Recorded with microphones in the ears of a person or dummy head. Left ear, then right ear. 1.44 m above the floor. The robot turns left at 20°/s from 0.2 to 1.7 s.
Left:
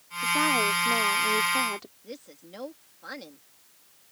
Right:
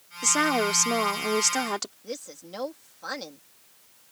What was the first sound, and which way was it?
A woman speaking, 90° right.